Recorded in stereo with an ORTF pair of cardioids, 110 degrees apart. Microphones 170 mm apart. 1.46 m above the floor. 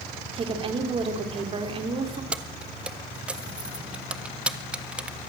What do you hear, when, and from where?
0.3 s a woman speaking: 30° right, 4.5 m
2.3 s keys jangling: 5° right, 1.6 m